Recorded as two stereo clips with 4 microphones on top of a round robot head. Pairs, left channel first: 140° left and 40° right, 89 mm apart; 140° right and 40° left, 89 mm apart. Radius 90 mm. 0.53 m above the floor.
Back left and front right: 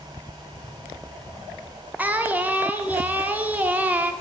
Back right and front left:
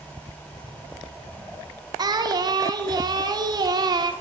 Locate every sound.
2.0 s singing: 25° left, 1.4 m